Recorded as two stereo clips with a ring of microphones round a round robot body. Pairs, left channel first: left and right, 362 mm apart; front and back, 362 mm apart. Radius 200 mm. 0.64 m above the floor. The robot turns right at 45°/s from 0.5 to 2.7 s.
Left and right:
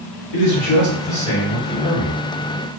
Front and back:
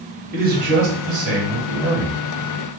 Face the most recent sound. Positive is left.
turn(degrees=-145)